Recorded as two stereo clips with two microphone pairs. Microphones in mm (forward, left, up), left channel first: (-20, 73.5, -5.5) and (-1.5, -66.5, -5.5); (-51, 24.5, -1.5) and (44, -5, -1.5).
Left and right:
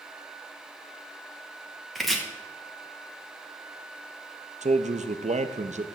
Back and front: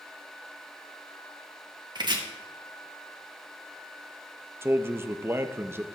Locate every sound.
1.9 s chopping: 10° left, 1.3 m
4.6 s a man speaking: 80° right, 0.6 m